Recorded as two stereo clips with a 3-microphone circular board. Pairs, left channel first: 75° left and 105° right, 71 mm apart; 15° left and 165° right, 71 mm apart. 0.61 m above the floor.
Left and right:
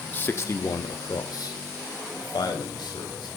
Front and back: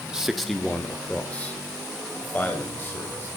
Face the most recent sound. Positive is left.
turn(degrees=75)